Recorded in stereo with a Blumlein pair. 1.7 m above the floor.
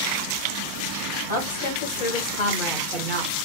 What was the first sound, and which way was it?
A woman speaking, 70° left.